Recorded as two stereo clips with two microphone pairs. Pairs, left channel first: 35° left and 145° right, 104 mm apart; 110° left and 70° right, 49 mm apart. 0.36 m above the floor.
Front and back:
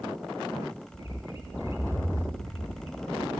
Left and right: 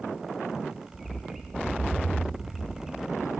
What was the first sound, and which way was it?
A bird, 15° left.